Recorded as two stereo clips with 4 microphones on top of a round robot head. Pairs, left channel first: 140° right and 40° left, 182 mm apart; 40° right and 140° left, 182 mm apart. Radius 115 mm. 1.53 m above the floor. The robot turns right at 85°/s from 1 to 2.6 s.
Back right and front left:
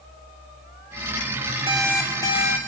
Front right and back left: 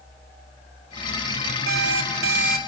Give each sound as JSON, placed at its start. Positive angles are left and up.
{"t": 1.7, "sound": "an alarm clock", "azimuth_deg": 100, "distance_m": 2.0}